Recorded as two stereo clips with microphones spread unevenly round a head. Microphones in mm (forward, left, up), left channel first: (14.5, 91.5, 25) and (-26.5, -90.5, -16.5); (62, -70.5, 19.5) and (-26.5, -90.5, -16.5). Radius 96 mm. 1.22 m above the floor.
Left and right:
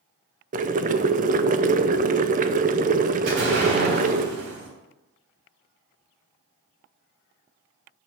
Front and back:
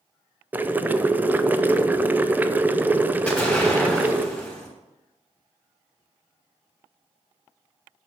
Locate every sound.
0.5 s boiling: 120° right, 0.6 m
3.3 s an explosion: 60° right, 3.5 m